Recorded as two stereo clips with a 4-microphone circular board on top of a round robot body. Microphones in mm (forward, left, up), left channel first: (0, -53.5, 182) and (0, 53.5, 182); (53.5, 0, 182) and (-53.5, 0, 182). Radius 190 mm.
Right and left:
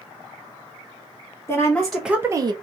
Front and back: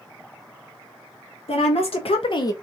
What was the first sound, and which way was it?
A woman speaking, 20° right.